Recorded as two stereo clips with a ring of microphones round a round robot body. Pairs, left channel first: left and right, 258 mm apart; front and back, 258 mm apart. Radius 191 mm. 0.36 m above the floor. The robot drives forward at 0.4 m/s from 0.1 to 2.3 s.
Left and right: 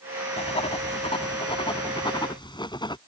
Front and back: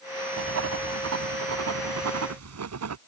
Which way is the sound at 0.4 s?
155° left.